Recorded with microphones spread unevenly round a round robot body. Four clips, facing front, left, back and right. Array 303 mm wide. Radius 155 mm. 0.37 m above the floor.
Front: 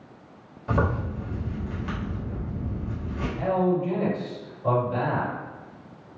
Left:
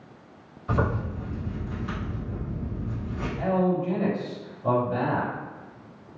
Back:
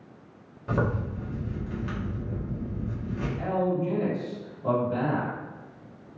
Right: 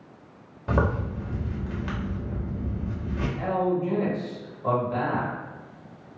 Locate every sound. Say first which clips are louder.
0.7 s a zipper: right 1 dB, front 2 dB; 90° right, 1.3 m
3.4 s a man speaking: left 1 dB, front 4 dB; 125° right, 1.7 m